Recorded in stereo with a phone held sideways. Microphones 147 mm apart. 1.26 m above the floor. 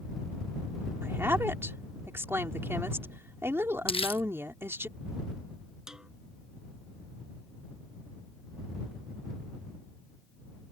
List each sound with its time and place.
1.0 s a woman speaking: 15° right (ahead or behind)
3.9 s crumpling: 40° left (ahead or behind)
5.9 s a snare drum: 5° right (ahead or behind)